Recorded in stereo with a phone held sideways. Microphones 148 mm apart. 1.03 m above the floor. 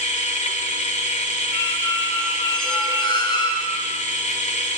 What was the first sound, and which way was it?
A machine running, 55° left (ahead or behind).